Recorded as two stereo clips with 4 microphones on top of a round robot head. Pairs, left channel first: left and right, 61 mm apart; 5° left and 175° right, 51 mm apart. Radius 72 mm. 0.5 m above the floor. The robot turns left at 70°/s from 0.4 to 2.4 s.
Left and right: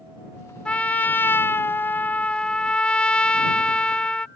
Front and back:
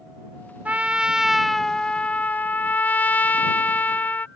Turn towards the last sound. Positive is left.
turn(degrees=30)